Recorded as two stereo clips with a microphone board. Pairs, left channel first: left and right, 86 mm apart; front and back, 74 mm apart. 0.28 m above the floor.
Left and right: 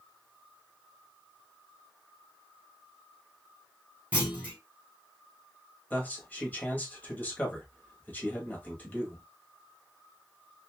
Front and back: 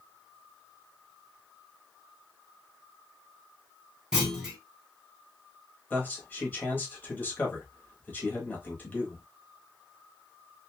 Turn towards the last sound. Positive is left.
turn(degrees=40)